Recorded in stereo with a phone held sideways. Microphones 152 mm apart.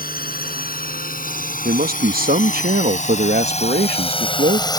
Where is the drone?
75° left (ahead or behind); by 4.8 s 25° left (ahead or behind).